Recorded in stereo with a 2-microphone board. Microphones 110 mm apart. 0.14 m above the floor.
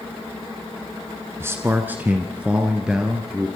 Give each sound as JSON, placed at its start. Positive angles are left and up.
{"t": 1.4, "sound": "a man speaking", "side_deg": -25, "distance_m": 1.3}